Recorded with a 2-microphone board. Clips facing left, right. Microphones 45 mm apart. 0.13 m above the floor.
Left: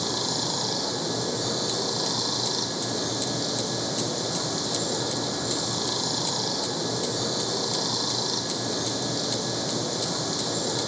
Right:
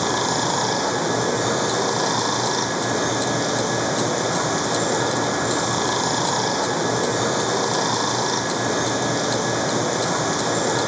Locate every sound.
0.0 s running water: 50° right (ahead or behind)